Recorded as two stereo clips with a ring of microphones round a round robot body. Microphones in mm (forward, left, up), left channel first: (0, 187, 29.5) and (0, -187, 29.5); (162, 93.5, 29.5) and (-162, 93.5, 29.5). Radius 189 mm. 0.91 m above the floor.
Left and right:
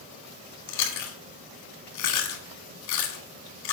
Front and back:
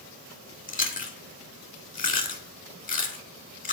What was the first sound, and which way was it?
Chewing, 65° left.